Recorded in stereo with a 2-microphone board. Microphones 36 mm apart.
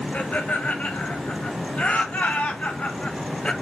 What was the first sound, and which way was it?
Laughter, 55° left (ahead or behind).